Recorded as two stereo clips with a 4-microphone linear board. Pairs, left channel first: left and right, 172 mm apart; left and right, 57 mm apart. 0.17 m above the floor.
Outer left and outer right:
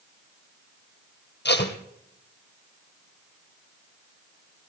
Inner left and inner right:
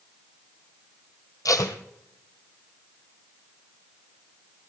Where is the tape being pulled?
80° left, 1.8 m.